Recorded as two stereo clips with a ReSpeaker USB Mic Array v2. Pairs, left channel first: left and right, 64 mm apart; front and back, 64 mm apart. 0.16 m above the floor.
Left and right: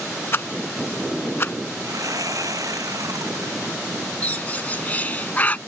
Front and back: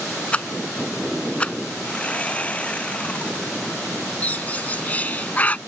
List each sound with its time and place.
0.3 s a rattle: 60° left
1.8 s sawing: 70° right
4.2 s a bird: 45° left